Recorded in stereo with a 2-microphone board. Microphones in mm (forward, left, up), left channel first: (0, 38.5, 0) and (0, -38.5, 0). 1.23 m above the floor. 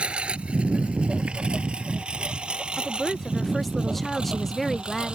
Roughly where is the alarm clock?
No alarm clock in this recording.